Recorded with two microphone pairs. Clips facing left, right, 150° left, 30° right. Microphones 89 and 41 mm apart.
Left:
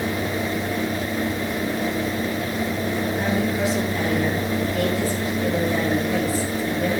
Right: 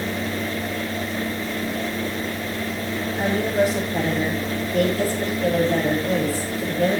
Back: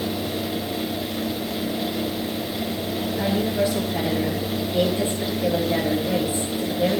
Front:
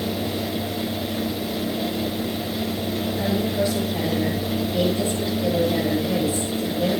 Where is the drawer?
I don't hear a drawer.